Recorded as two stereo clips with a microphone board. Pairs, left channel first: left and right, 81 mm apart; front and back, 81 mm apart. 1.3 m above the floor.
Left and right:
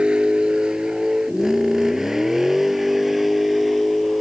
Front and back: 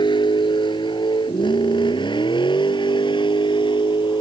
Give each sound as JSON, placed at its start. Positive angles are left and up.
{"t": 0.0, "sound": "a vehicle", "azimuth_deg": -10}